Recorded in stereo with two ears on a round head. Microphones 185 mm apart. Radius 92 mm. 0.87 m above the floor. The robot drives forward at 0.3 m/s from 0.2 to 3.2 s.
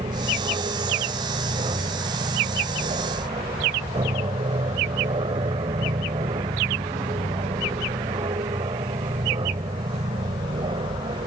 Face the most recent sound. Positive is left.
turn(degrees=-25)  # may be behind; listen again after turning